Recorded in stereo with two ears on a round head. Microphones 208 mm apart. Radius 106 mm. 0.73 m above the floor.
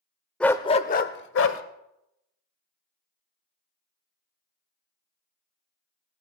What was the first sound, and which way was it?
A dog barking, 5° left (ahead or behind).